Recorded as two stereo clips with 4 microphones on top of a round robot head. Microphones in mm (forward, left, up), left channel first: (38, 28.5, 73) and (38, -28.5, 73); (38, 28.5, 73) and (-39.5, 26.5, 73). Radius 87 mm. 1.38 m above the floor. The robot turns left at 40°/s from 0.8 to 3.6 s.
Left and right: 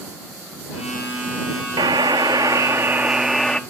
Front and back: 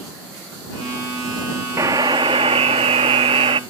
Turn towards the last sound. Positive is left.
turn(degrees=170)